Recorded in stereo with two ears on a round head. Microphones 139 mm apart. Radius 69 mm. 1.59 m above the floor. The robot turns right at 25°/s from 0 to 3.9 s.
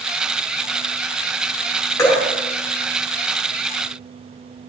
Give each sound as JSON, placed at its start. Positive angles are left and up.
{"t": 2.0, "sound": "dripping", "side_deg": 20, "distance_m": 2.5}